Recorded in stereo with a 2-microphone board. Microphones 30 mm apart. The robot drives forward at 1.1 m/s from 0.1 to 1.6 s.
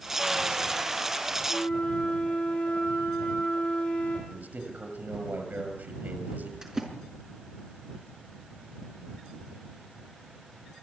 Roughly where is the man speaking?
Right.